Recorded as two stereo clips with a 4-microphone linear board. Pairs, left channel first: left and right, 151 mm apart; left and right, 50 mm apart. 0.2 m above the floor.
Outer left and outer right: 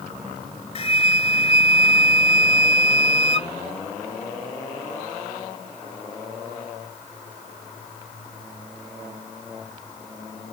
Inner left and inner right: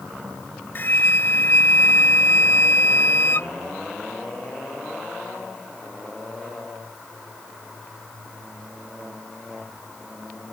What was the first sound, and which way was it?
A flute, 45° left (ahead or behind).